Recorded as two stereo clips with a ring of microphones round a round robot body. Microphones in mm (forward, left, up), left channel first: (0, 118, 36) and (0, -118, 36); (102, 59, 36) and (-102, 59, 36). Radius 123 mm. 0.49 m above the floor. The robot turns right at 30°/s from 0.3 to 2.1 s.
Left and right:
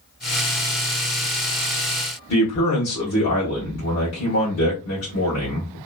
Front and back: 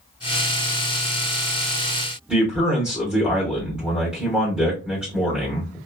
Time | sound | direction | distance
2.3 | a man speaking | 95° left | 1.2 m